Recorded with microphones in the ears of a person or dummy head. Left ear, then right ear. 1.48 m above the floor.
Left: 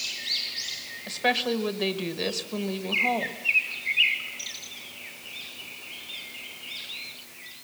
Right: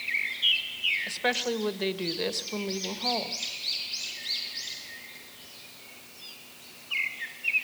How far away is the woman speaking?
About 1.5 m.